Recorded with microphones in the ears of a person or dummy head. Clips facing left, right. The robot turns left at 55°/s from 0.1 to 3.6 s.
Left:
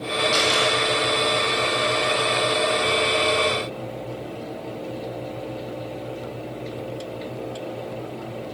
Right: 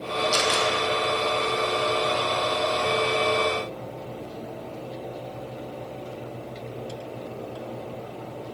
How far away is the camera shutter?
About 1.6 m.